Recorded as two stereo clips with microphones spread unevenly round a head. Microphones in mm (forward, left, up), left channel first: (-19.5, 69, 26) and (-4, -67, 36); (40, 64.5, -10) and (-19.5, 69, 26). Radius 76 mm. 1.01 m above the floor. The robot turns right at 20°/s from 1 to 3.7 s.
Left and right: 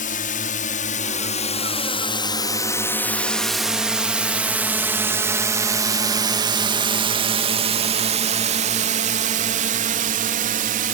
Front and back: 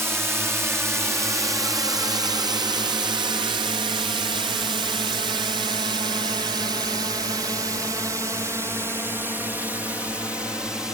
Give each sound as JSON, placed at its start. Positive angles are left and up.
{"t": 0.0, "sound": "a drone", "azimuth_deg": 115}